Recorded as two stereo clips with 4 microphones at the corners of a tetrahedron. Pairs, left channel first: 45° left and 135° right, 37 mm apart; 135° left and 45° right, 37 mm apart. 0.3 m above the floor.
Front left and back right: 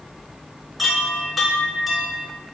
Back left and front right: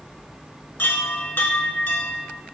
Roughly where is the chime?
Behind left.